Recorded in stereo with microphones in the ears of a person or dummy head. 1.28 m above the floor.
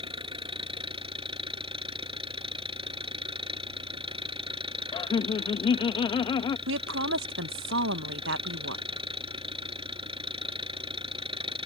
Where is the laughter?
25° left (ahead or behind).